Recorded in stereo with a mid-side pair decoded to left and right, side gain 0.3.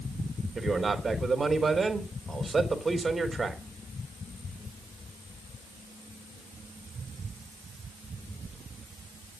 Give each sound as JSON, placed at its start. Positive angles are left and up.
{"t": 0.6, "sound": "a man speaking", "azimuth_deg": -40, "distance_m": 4.0}